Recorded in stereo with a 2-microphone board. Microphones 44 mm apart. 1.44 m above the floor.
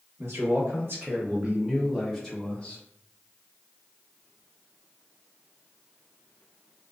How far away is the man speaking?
About 1.3 m.